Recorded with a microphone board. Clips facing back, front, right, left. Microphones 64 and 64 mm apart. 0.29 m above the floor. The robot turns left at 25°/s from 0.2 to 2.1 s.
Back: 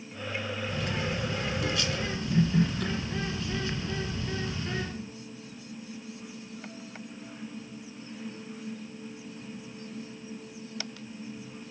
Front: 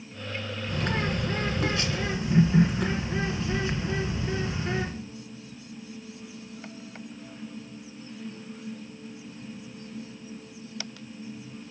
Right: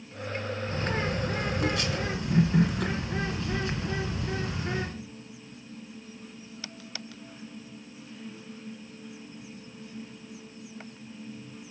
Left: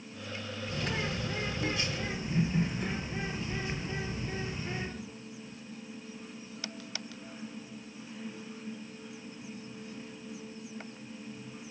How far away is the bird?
About 3 m.